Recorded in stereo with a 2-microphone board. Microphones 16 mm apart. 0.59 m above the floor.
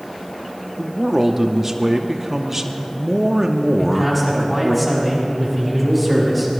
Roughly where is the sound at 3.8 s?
Centre.